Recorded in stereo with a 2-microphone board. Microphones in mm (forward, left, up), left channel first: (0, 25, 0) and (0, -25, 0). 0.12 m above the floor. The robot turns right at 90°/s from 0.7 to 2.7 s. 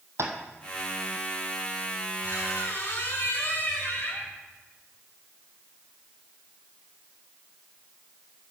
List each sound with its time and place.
0.2 s tapping: 65° right (ahead or behind), 1.9 m
2.2 s a squeak: 70° left, 7 m; by 4.4 s 115° left, 7 m